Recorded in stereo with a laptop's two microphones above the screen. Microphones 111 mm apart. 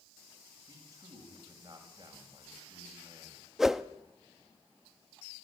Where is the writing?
I don't hear writing.